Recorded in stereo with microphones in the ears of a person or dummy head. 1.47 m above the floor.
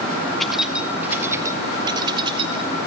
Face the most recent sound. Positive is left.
turn(degrees=-35)  # may be behind; listen again after turning